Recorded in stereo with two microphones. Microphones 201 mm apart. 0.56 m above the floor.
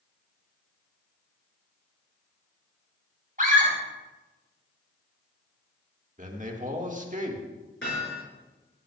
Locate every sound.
3.4 s a scream: 45° right (ahead or behind), 3.5 m
6.2 s a man speaking: 40° right (ahead or behind), 1.6 m
7.8 s hammering: 75° left (ahead or behind), 6 m